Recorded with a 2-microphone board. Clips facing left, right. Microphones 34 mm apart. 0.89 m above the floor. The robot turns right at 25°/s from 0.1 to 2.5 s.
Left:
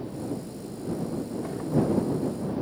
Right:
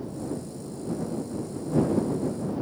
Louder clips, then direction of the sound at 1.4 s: Left 2 dB; 60° left (ahead or behind).